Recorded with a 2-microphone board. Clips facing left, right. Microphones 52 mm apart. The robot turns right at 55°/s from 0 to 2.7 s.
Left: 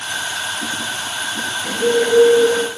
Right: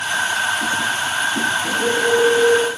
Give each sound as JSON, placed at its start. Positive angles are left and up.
{"t": 1.6, "sound": "a bird", "azimuth_deg": 0, "distance_m": 2.5}